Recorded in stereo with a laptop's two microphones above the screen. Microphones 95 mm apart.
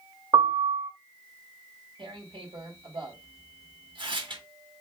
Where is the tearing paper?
60° right (ahead or behind), 2.5 m.